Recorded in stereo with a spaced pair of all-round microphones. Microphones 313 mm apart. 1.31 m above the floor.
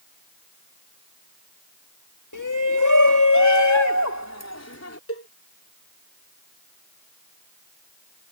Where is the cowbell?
50° left (ahead or behind).